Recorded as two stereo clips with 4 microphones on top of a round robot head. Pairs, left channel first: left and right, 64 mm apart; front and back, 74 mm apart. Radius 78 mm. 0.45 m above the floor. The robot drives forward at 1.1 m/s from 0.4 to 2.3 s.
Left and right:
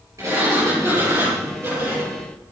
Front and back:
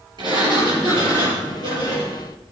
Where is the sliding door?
140° right, 6 m; by 2.2 s 150° right, 7.5 m.